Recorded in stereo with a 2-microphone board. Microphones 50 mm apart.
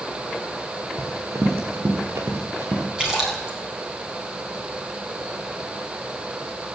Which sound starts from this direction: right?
Running footsteps, at 1.0 s.